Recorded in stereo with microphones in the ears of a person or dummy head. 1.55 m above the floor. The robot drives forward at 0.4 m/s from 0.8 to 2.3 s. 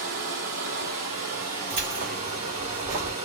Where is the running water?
40° right (ahead or behind), 1.6 m; by 3.2 s 35° right (ahead or behind), 2.0 m.